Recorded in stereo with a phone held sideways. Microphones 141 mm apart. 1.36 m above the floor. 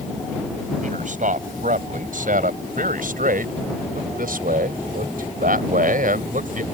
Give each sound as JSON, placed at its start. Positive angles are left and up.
{"t": 0.8, "sound": "a man speaking", "side_deg": -65}